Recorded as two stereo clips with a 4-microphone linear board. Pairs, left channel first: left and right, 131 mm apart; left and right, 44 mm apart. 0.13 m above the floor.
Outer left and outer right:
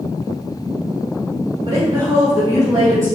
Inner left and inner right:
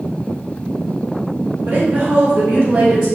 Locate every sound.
1.7 s a woman speaking: 30° right (ahead or behind), 1.2 m; by 3.1 s 25° right (ahead or behind), 2 m